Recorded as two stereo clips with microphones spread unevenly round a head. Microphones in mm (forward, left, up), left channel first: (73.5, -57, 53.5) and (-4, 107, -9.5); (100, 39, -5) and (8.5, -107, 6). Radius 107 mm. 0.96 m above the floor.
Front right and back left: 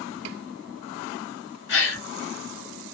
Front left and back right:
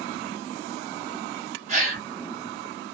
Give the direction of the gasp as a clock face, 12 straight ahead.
3 o'clock.